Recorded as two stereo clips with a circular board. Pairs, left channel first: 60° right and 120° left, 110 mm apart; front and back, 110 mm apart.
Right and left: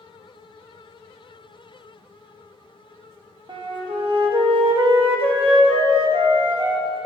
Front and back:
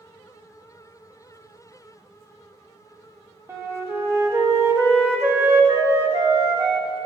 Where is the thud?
I don't hear a thud.